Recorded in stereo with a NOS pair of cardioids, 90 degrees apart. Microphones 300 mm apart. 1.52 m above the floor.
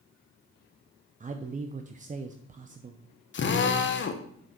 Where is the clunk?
No clunk in this recording.